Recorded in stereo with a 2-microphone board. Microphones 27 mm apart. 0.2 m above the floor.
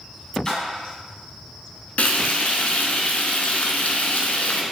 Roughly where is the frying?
Left.